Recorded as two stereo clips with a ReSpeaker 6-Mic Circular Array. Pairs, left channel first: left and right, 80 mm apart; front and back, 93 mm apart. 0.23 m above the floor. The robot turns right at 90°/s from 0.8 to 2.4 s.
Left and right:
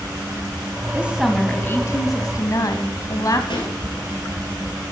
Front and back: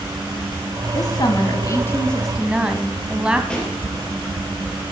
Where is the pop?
80° left, 4 m.